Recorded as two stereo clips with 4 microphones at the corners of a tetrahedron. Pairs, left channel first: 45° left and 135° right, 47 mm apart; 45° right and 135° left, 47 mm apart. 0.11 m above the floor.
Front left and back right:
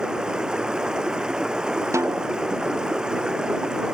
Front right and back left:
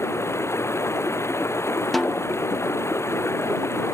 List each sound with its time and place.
0.0 s running water: 60° right
1.9 s a snare drum: 135° right